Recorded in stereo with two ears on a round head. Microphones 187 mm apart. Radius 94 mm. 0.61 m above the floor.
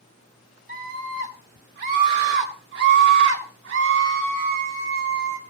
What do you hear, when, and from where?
0.7 s a scream: 40° right (ahead or behind), 4.5 m; by 5.4 s 65° right (ahead or behind), 3 m